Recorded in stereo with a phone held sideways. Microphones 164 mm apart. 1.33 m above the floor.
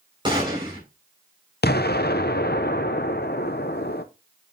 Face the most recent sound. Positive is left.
turn(degrees=75)  # may be behind; listen again after turning